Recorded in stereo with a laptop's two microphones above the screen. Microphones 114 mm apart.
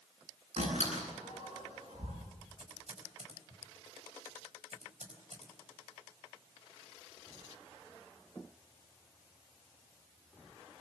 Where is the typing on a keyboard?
75° right (ahead or behind), 4 m.